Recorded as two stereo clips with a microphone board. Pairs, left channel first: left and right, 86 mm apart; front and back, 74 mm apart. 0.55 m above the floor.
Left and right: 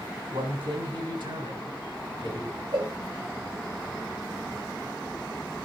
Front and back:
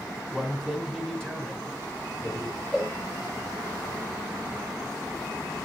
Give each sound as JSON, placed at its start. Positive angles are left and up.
{"t": 0.3, "sound": "a man speaking", "azimuth_deg": -90, "distance_m": 4.5}
{"t": 2.7, "sound": "a cowbell", "azimuth_deg": -80, "distance_m": 3.5}